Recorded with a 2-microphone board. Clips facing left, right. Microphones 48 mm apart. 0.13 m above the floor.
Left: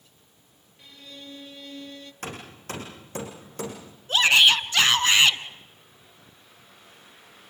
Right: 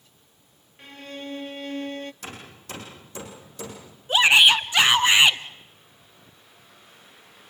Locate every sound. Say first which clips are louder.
0.8 s a violin: right 7 dB; 50° right (ahead or behind), 0.6 m
2.2 s hammering: left 3 dB; 50° left (ahead or behind), 7 m
4.1 s a shout: right 2 dB; 20° right (ahead or behind), 1.1 m